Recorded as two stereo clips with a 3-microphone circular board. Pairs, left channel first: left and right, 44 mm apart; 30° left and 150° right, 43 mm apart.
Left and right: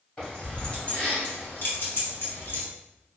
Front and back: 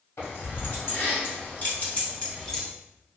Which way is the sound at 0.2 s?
25° left.